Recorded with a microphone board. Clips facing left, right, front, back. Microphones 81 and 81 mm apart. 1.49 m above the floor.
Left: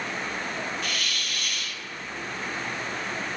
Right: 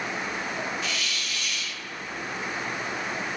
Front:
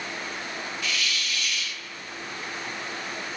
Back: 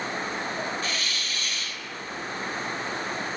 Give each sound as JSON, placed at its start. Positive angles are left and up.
{"t": 0.8, "sound": "a hiss", "azimuth_deg": 125, "distance_m": 0.6}